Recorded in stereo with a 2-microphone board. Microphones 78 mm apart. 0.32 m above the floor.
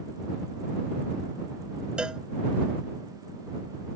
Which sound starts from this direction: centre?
A cowbell, at 2.0 s.